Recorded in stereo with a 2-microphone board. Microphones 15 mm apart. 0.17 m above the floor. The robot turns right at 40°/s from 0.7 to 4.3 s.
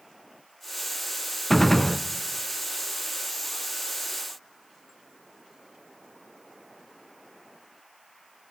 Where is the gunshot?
15° left (ahead or behind), 0.8 m; by 2.0 s 30° left (ahead or behind), 0.8 m.